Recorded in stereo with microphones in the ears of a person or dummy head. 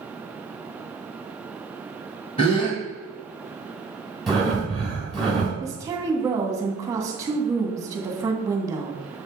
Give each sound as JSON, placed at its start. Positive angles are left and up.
{"t": 2.4, "sound": "a gasp", "side_deg": 30, "distance_m": 1.5}
{"t": 4.3, "sound": "breathing", "side_deg": 0, "distance_m": 2.0}
{"t": 5.6, "sound": "a woman speaking", "side_deg": -20, "distance_m": 1.5}